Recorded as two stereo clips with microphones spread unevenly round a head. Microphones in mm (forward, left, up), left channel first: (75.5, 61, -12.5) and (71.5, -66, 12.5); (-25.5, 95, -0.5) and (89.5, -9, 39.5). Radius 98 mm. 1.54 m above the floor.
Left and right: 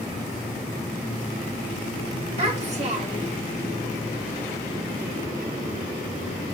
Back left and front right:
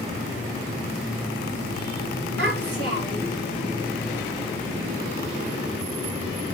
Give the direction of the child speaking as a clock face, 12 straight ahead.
2 o'clock.